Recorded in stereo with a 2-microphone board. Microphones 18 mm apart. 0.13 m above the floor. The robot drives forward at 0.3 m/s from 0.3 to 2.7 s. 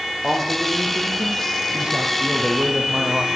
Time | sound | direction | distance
0.2 | a man speaking | 65° right (ahead or behind) | 5 m